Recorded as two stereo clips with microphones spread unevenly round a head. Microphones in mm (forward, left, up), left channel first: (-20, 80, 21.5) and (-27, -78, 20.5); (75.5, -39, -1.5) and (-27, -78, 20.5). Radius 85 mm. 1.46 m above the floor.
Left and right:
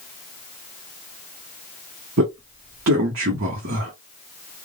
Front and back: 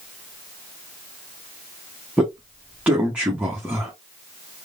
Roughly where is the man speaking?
Right.